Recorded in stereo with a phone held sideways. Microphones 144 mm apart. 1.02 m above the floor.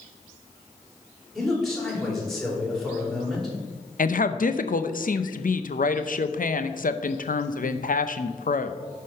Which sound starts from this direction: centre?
A man speaking, at 1.4 s.